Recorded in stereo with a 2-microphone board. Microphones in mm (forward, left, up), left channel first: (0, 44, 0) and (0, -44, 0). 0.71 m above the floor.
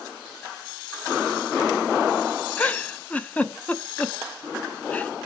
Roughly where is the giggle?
Centre.